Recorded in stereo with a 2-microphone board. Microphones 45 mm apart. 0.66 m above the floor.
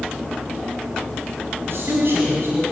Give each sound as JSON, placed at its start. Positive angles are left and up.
{"t": 1.7, "sound": "a man speaking", "side_deg": -65, "distance_m": 4.0}